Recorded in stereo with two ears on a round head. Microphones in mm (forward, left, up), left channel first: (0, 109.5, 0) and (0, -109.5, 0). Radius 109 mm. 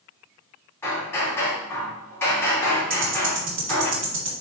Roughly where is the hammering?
Centre.